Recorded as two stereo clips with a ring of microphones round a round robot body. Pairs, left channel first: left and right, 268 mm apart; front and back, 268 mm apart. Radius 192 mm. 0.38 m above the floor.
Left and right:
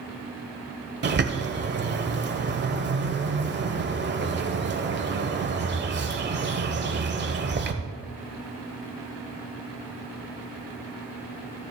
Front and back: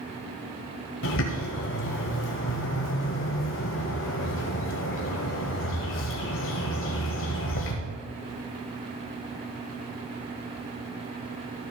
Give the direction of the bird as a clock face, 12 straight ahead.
1 o'clock.